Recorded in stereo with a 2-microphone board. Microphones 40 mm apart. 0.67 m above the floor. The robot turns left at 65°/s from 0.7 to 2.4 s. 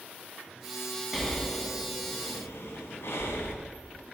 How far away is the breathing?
About 2.5 m.